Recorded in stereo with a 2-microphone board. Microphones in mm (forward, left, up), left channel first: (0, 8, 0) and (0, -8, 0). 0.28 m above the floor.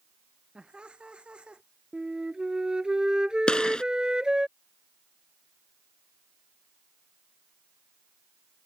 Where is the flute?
50° right (ahead or behind).